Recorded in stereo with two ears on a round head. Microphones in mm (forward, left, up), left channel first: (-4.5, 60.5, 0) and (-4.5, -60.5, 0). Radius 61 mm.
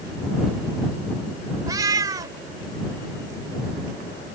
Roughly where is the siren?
I don't hear a siren.